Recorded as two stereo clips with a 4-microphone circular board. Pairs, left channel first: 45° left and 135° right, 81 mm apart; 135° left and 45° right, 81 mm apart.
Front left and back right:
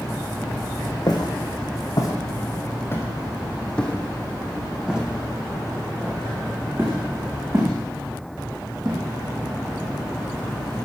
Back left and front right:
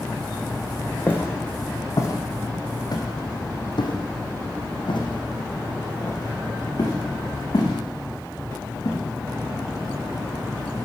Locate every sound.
1.1 s footsteps: 70° left, 2.5 m; by 9.0 s 175° left, 5 m